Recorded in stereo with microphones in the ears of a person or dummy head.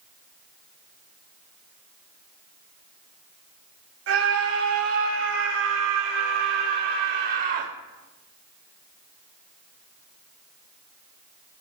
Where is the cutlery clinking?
I don't hear cutlery clinking.